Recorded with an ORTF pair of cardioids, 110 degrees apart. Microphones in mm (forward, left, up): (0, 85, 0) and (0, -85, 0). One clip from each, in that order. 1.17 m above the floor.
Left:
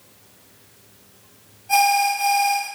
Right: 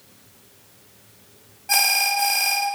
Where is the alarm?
60° right, 0.8 m.